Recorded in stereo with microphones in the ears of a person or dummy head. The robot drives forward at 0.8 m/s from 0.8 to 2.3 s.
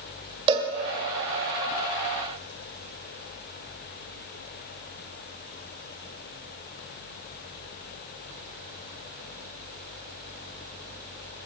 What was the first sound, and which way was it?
A cowbell, 30° right (ahead or behind).